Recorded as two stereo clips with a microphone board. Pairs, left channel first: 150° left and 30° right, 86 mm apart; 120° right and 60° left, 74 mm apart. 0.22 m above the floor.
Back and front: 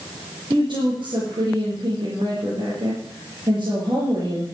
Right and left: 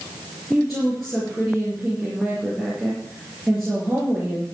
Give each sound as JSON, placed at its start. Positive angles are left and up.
{"t": 0.5, "sound": "a woman speaking", "azimuth_deg": -30, "distance_m": 5.0}